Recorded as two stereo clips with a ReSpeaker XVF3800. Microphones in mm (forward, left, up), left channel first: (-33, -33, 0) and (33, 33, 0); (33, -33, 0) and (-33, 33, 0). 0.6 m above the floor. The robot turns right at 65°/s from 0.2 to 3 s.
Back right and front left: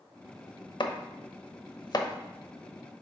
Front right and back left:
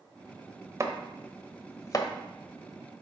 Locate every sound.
0.8 s chopping: 170° right, 0.8 m; by 2.1 s 85° right, 0.8 m